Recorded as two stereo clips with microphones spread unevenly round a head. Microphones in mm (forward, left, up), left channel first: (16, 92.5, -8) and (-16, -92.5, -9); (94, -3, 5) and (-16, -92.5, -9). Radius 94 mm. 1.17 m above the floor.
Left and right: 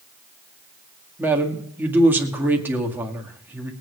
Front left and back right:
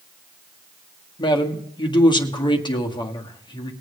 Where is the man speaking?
20° right, 1.9 m.